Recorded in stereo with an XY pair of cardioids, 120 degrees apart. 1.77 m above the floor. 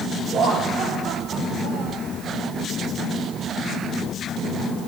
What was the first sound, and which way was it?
Laughter, 60° right.